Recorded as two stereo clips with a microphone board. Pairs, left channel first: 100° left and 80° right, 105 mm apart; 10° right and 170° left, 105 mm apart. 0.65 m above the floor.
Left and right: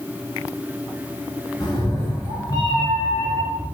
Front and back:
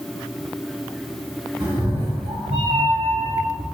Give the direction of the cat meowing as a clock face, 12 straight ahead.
7 o'clock.